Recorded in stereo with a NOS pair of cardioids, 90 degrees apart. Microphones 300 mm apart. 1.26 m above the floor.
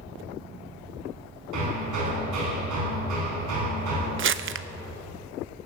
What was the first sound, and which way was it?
Hammering, 65° right.